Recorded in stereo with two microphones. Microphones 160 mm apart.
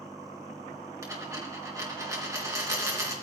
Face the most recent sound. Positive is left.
turn(degrees=-20)  # may be behind; listen again after turning